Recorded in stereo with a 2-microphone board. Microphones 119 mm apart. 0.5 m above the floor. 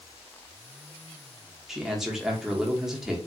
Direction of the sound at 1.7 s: 5° right (ahead or behind).